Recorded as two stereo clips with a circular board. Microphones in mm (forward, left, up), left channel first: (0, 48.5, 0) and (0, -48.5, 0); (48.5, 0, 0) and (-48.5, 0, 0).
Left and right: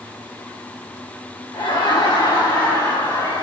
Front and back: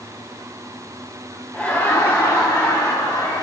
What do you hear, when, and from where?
1.5 s laughter: 75° left, 1.1 m; by 3.4 s 40° left, 2.5 m